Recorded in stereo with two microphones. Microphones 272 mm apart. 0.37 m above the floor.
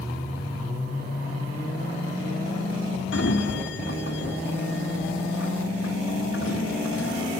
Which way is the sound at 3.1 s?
45° left (ahead or behind).